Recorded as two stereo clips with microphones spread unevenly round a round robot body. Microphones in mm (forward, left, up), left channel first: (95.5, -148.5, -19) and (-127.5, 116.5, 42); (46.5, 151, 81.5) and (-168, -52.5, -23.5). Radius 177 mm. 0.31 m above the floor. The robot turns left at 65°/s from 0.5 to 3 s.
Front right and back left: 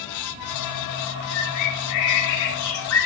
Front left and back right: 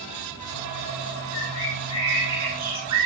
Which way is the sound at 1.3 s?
5° left.